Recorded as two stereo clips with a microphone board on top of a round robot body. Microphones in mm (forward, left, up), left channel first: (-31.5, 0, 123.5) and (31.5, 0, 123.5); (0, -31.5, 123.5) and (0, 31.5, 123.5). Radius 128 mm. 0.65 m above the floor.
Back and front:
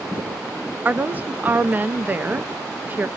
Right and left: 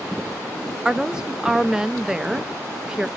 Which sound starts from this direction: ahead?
A woman speaking, at 0.8 s.